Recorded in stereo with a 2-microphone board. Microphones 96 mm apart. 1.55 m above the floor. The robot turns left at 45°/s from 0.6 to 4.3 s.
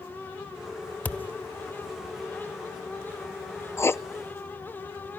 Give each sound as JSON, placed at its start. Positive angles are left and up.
{"t": 1.1, "sound": "a thud", "side_deg": 15, "distance_m": 0.9}
{"t": 3.8, "sound": "writing", "side_deg": 30, "distance_m": 0.5}